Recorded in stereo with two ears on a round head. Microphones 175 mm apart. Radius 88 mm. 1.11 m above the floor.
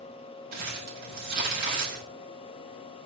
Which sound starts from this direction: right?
Crumpling, at 0.5 s.